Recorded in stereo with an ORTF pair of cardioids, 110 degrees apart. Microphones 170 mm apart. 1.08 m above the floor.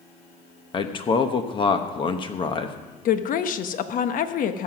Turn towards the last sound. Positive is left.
turn(degrees=50)